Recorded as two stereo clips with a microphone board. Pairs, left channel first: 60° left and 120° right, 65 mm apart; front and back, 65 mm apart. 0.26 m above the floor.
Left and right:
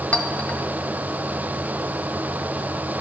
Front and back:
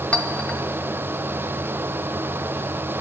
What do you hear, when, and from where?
0.1 s a clink: 30° left, 0.5 m